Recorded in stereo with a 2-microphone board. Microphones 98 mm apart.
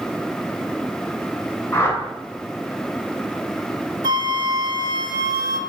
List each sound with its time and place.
1.7 s a whoosh: 25° left (ahead or behind), 1.4 m
4.0 s a flute: 50° right (ahead or behind), 0.6 m